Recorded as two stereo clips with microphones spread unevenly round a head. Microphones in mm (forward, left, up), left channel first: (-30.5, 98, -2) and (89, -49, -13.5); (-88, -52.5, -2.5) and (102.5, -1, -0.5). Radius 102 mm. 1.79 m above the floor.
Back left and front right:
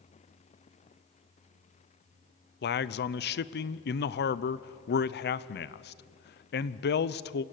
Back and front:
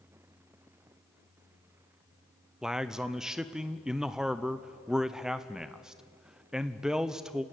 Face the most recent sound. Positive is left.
turn(degrees=100)